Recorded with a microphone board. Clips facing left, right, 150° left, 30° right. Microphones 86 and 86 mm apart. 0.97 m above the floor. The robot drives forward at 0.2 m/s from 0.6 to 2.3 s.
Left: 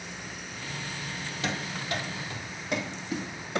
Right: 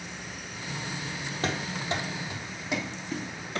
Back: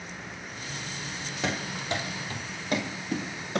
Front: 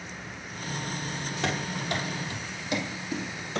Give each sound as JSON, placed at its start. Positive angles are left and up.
{"t": 1.4, "sound": "running footsteps", "azimuth_deg": -125, "distance_m": 1.5}